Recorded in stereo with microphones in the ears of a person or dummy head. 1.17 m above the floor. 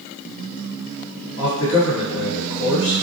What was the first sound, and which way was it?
A man speaking, 70° left (ahead or behind).